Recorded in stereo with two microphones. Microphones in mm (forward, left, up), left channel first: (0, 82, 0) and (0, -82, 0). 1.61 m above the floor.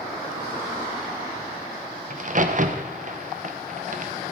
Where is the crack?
50° right (ahead or behind), 0.9 m.